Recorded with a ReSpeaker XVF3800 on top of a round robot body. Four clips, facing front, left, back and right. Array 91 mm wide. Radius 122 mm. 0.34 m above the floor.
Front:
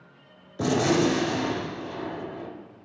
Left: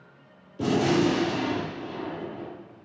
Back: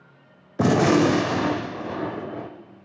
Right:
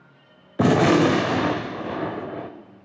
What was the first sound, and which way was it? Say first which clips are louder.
A gunshot: right 6 dB, back 4 dB; 120° right.